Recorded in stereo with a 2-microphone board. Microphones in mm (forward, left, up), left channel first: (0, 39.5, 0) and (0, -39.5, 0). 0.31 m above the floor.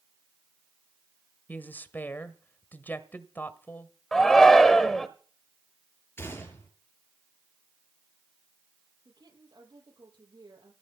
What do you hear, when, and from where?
1.5 s a woman speaking: 25° left (ahead or behind), 1.2 m
4.1 s a shout: 5° left (ahead or behind), 1.0 m
6.2 s a gunshot: 35° left (ahead or behind), 4.5 m
9.1 s a woman speaking: 75° right (ahead or behind), 8 m